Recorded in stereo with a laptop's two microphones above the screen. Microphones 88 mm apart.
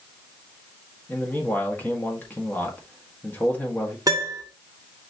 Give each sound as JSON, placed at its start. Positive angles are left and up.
{"t": 1.1, "sound": "a man speaking", "side_deg": 20, "distance_m": 1.6}
{"t": 4.1, "sound": "a piano", "side_deg": -40, "distance_m": 1.1}